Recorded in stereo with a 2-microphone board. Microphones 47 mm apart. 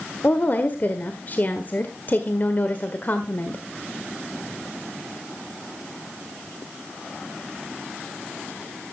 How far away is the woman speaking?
About 1.4 m.